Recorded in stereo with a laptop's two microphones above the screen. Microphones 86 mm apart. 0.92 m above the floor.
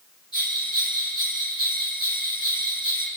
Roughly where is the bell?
Left.